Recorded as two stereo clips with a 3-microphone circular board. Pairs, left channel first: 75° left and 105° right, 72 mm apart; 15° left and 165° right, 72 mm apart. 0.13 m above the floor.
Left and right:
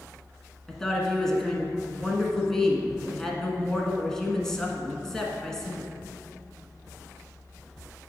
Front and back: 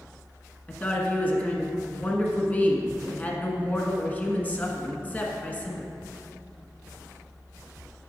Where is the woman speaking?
5° left, 1.3 m.